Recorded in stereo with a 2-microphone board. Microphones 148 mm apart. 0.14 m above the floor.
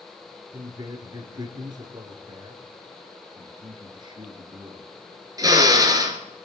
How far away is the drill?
About 1.7 m.